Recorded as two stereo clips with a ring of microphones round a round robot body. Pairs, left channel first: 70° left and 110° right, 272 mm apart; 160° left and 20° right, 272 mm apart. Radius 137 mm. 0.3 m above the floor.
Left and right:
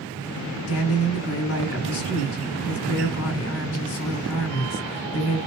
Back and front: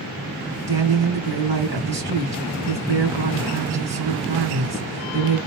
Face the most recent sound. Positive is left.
turn(degrees=45)